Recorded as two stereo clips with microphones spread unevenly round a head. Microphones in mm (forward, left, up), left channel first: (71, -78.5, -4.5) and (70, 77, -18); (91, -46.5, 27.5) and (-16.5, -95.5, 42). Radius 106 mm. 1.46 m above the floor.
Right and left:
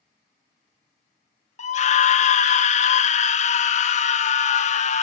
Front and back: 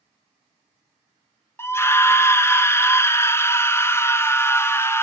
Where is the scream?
45° right, 0.5 m.